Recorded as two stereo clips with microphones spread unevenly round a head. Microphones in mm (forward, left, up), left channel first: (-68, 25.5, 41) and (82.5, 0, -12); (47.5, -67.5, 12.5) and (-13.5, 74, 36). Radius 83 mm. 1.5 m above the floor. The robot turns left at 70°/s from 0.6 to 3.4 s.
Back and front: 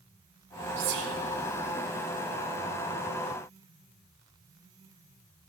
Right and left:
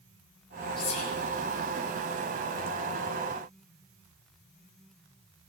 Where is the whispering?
5° right, 1.3 m; by 1.1 s 30° right, 1.3 m.